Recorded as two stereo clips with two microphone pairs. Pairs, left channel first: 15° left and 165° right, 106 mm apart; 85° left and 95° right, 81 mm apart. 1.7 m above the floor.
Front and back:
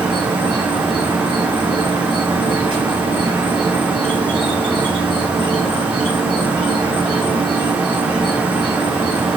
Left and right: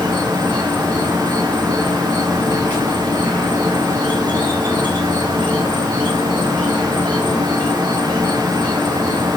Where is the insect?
150° left, 2.5 m.